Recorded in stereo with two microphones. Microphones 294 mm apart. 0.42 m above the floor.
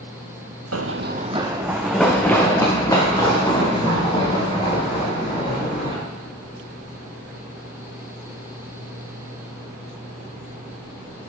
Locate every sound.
0.7 s running footsteps: 60° right (ahead or behind), 0.8 m; by 6.0 s 20° left (ahead or behind), 6.5 m